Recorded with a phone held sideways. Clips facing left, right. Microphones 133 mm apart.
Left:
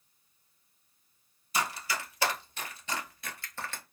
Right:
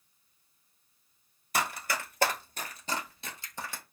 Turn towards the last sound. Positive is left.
turn(degrees=-10)  # may be behind; listen again after turning